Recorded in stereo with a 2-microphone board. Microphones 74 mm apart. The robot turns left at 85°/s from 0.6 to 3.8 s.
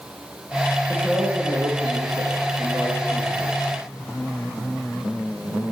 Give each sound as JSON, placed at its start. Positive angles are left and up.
{"t": 0.9, "sound": "a man speaking", "azimuth_deg": 15, "distance_m": 4.5}